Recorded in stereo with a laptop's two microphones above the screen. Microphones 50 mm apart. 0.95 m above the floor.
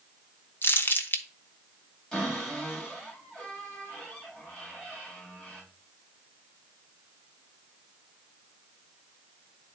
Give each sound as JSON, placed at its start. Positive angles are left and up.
{"t": 0.6, "sound": "crumpling", "side_deg": 45, "distance_m": 0.9}
{"t": 2.1, "sound": "a cupboard door", "side_deg": 10, "distance_m": 3.5}